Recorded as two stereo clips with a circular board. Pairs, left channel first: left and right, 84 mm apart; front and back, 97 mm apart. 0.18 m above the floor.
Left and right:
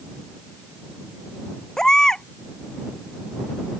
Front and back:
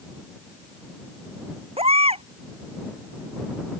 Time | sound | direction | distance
1.8 | a baby crying | 175° left | ?